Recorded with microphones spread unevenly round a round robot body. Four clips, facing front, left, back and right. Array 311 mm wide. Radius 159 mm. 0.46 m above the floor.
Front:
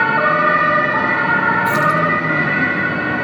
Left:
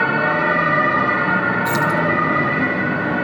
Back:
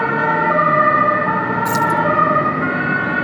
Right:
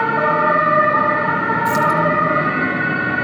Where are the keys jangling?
160° right, 4.5 m.